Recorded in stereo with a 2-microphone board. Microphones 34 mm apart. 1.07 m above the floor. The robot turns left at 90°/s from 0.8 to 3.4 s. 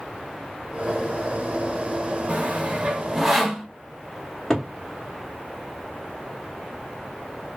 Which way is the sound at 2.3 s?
40° right (ahead or behind).